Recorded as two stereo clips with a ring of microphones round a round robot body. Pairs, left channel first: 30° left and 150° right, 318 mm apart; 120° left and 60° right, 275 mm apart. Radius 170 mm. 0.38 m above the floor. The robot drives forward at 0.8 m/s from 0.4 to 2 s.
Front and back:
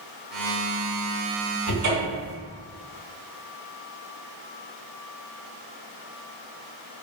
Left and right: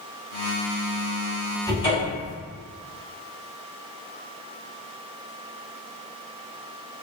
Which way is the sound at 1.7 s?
170° right.